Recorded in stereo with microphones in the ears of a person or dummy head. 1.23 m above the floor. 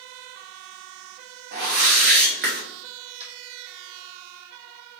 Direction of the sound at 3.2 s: 35° right (ahead or behind).